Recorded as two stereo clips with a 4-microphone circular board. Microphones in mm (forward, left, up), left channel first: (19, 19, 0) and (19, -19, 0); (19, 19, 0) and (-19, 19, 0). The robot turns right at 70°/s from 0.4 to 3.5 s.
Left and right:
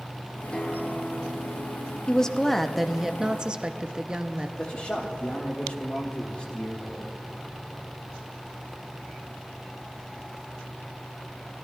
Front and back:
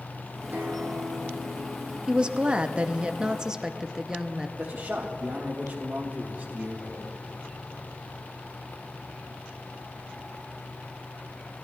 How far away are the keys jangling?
I don't hear keys jangling.